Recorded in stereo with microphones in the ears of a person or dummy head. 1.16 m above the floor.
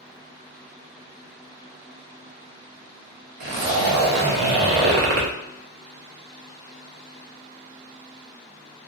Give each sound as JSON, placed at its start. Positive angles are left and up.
{"t": 3.4, "sound": "a zipper", "side_deg": -55, "distance_m": 0.6}